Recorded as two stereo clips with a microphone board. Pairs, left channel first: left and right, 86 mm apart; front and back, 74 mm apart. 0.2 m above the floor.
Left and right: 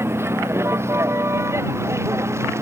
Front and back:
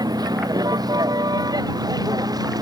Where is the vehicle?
150° right.